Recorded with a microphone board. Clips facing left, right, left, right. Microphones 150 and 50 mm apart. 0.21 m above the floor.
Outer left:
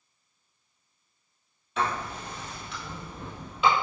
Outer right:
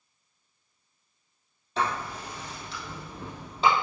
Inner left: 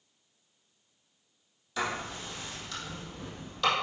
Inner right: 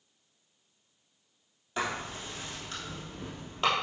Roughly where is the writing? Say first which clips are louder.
Even, even; right.